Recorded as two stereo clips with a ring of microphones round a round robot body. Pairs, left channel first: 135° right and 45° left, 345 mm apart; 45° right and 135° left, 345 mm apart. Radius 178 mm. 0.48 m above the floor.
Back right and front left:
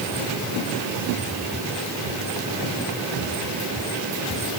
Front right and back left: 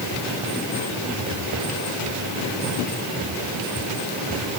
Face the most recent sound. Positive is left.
No sound to turn to.